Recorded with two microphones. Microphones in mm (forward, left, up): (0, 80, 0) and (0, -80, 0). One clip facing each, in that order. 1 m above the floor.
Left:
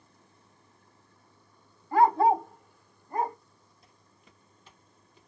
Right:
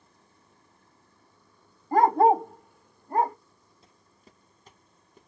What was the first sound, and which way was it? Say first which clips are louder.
A dog barking: right 2 dB; 40° right (ahead or behind).